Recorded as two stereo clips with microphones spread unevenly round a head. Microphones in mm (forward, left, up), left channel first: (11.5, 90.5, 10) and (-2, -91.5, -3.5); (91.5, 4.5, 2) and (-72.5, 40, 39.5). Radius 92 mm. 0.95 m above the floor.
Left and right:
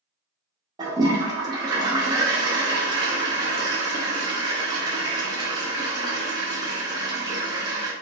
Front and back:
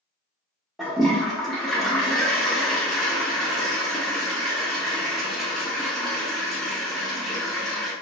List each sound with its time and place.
0.8 s a toilet flushing: 135° right, 0.5 m